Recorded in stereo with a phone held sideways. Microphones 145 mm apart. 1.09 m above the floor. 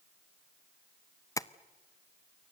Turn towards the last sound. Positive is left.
turn(degrees=25)  # may be behind; listen again after turning